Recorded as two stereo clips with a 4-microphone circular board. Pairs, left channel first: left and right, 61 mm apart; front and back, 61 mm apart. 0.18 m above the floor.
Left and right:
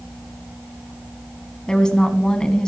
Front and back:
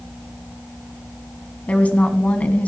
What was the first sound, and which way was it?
A woman speaking, 30° left.